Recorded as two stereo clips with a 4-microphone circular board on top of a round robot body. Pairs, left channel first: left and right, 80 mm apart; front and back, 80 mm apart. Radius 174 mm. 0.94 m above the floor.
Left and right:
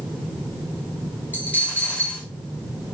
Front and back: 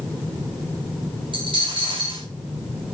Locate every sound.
1.3 s a dropped coin: 160° left, 3.5 m